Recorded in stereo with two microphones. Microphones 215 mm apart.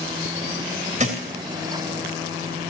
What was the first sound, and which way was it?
A thud, 35° right (ahead or behind).